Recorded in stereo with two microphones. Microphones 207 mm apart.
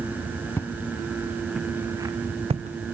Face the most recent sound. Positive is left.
turn(degrees=-45)  # may be behind; listen again after turning